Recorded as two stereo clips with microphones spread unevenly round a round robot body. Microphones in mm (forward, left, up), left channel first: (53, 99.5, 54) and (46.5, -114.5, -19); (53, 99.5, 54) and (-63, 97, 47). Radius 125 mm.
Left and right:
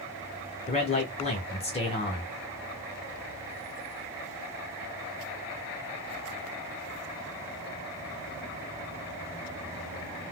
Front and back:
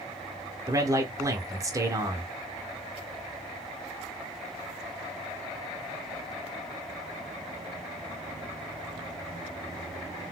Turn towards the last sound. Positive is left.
turn(degrees=160)